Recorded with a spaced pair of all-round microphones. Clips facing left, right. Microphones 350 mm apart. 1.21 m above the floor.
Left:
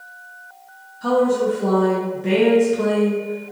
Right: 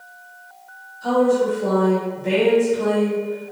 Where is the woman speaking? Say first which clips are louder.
Even; 75° left (ahead or behind), 1.0 m.